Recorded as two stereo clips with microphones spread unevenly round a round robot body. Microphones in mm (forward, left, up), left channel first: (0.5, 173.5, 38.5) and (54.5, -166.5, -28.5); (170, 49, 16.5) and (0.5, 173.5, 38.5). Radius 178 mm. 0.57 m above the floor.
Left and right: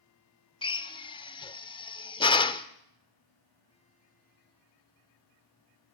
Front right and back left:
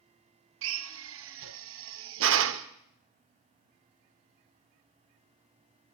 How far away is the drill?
About 0.8 m.